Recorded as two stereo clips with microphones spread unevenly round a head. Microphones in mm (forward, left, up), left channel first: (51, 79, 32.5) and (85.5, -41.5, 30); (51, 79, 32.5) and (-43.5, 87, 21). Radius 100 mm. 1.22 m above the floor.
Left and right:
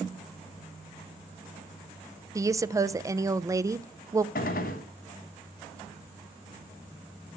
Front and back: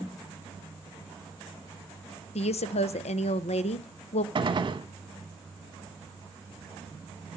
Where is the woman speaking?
10° right, 0.6 m.